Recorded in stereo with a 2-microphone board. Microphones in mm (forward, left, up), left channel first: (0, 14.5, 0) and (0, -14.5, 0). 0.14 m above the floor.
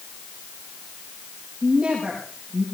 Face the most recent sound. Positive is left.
turn(degrees=-40)  # may be behind; listen again after turning